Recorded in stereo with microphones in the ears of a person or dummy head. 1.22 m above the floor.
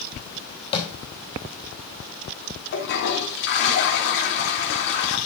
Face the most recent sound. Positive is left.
turn(degrees=70)  # may be behind; listen again after turning